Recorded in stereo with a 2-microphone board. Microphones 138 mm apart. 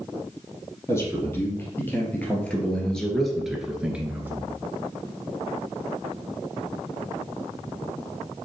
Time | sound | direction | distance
0.9 | a man speaking | 20° left (ahead or behind) | 2.5 m